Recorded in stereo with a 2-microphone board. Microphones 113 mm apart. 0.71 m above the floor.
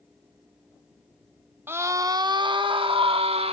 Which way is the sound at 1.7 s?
20° right (ahead or behind).